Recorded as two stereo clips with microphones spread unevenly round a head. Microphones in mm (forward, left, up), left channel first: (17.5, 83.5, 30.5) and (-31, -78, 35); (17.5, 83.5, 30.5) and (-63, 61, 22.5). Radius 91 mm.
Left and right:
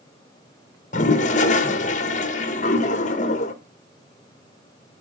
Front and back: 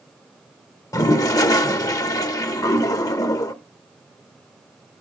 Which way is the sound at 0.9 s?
35° left.